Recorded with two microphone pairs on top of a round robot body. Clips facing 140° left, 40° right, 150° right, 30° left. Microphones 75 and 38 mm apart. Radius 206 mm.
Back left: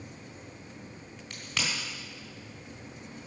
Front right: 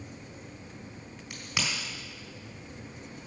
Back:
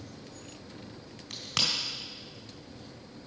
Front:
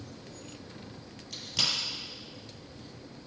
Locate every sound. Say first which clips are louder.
1.3 s a crack: front right 1 dB, back 1 dB; 120° right, 3.5 m